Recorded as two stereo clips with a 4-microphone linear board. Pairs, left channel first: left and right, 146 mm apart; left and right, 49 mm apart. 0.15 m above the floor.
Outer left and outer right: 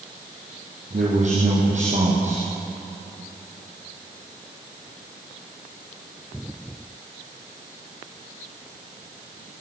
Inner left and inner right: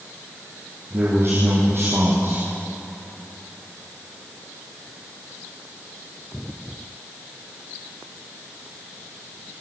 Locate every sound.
0.9 s a man speaking: 50° right (ahead or behind), 6.5 m